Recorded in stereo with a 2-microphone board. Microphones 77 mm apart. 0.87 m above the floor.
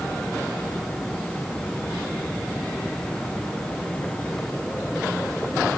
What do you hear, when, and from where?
Only background noise.